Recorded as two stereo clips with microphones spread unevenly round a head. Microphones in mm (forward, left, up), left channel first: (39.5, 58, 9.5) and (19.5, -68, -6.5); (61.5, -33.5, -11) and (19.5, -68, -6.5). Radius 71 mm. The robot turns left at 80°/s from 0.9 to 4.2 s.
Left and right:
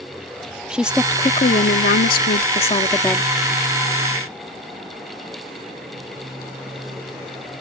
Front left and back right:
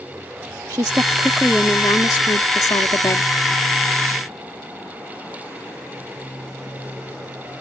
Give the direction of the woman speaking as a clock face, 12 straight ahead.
6 o'clock.